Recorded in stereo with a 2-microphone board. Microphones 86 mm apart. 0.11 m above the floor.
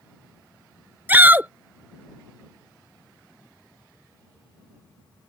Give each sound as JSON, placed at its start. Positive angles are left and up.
{"t": 1.1, "sound": "a shout", "side_deg": -20}